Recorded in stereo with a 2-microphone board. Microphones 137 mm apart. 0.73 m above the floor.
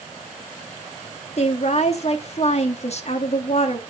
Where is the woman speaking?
50° left (ahead or behind), 1.3 m.